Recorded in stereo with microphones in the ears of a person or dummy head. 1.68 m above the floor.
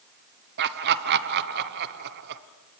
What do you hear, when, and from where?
0.6 s laughter: 60° right (ahead or behind), 1.0 m